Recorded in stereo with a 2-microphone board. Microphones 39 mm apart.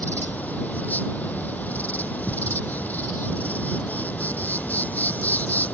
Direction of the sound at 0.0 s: 45° left (ahead or behind).